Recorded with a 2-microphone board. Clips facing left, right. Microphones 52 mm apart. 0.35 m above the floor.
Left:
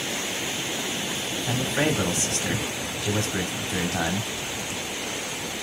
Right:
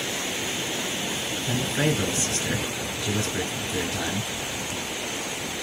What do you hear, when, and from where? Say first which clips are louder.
1.5 s a man speaking: left 1 dB; 65° left (ahead or behind), 1.8 m